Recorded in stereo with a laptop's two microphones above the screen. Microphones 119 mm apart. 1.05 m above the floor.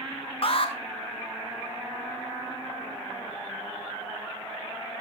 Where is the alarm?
50° left (ahead or behind), 1.5 m.